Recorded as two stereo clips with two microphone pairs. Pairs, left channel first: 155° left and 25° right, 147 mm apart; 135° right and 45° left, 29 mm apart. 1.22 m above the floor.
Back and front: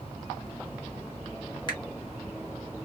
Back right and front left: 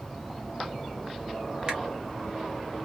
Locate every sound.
1.7 s a finger snap: 100° left, 1.3 m